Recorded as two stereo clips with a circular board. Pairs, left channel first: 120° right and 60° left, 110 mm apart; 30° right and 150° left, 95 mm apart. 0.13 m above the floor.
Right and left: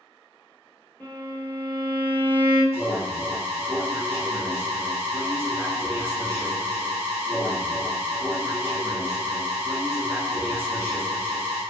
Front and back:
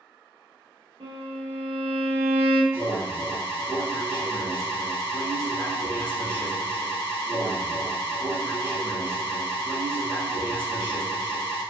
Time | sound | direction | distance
1.0 | a violin | 165° left | 1.1 m
2.7 | an alarm | 110° left | 1.0 m